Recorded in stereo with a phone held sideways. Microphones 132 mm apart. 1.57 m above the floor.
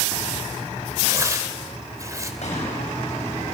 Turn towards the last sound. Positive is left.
turn(degrees=60)  # may be behind; listen again after turning